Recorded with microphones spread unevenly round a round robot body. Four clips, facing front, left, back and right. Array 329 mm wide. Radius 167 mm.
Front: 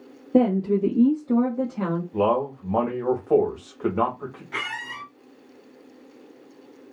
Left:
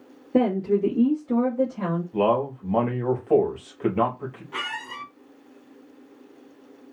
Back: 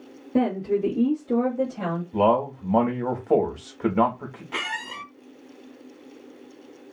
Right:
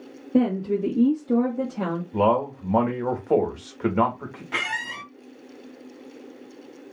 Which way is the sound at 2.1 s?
155° right.